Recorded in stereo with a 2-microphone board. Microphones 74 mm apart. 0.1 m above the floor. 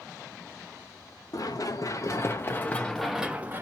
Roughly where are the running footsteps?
Left.